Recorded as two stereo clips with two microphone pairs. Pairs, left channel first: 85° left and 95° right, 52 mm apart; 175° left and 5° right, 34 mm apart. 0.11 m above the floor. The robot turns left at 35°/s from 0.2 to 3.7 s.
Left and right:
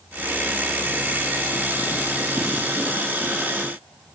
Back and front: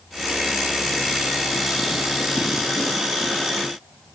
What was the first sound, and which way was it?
Only background noise.